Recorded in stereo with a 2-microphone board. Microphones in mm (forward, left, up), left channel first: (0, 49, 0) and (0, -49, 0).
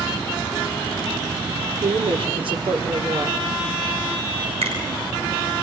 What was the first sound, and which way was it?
A woman speaking, 60° right (ahead or behind).